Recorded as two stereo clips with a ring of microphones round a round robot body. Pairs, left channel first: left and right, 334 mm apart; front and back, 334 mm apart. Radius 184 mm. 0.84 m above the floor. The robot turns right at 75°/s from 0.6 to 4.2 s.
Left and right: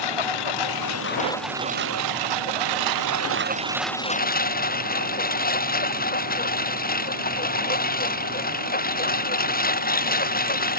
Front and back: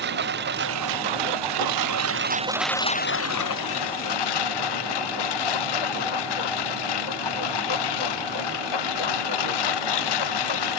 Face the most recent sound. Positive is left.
turn(degrees=25)